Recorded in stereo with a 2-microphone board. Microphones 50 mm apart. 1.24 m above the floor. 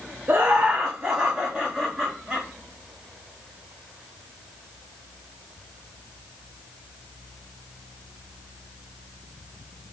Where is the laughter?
35° right (ahead or behind), 0.5 m; by 2.5 s 5° left (ahead or behind), 1.7 m.